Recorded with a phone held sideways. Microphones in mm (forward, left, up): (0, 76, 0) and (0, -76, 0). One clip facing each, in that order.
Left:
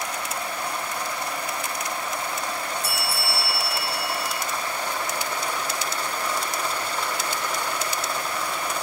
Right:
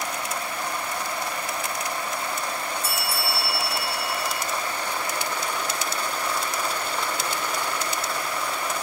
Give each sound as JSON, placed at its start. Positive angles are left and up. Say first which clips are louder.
{"t": 2.8, "sound": "a bell", "louder": "even", "side_deg": 65, "distance_m": 2.5}